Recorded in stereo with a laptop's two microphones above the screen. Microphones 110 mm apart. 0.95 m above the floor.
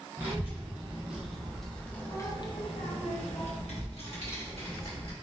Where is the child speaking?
20° right (ahead or behind), 1.4 m; by 5.1 s 60° left (ahead or behind), 1.6 m.